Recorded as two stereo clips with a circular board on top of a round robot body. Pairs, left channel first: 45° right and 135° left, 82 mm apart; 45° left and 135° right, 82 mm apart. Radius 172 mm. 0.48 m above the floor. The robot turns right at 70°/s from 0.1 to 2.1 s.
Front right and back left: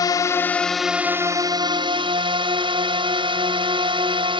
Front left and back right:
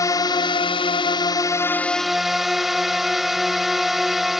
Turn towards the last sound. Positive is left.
turn(degrees=135)